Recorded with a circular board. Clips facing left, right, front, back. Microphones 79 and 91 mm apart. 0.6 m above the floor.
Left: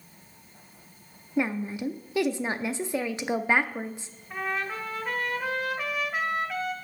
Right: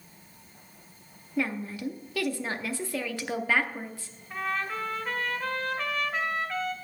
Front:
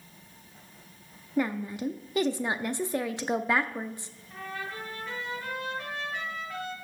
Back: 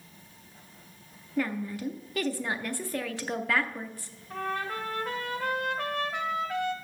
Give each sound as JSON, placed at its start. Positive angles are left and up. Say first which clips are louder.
{"t": 1.4, "sound": "a woman speaking", "louder": "left 3 dB, front 2 dB", "azimuth_deg": 45, "distance_m": 0.6}
{"t": 4.3, "sound": "a trumpet", "louder": "even, back 6 dB", "azimuth_deg": 175, "distance_m": 1.4}